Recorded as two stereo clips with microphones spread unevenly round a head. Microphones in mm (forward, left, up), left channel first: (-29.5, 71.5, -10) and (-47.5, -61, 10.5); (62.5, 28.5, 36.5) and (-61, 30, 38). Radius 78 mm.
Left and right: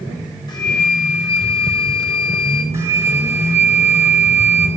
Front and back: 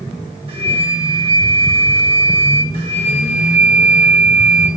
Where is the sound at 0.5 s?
140° left, 1.8 m.